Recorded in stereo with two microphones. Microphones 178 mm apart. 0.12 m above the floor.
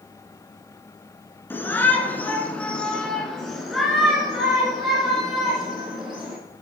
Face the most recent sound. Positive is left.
turn(degrees=-5)  # may be behind; listen again after turning